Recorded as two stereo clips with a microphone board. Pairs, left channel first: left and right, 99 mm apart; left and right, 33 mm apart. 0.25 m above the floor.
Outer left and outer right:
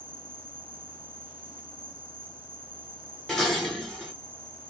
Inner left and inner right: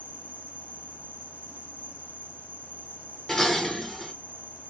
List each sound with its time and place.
0.0 s an insect: 60° right (ahead or behind), 3 m
3.3 s dishes clattering: centre (ahead or behind), 2 m